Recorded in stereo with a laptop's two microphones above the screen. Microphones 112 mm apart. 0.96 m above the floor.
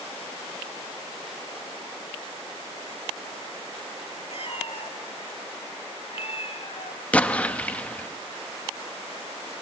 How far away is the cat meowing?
About 1.9 m.